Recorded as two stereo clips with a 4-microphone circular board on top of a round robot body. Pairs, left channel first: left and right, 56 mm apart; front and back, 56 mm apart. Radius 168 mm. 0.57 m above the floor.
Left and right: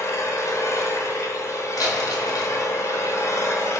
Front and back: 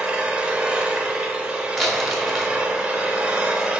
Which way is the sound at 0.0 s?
105° left.